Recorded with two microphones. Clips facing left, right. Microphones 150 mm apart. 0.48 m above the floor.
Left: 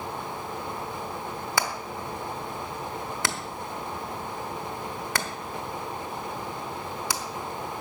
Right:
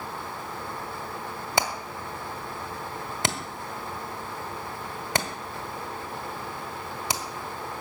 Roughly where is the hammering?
Right.